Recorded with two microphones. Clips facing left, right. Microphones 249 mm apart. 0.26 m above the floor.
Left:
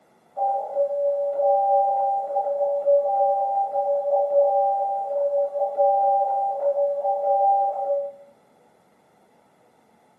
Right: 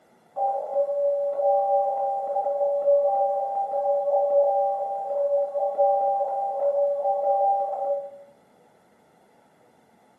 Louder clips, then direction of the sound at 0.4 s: Left 1 dB; 60° right (ahead or behind).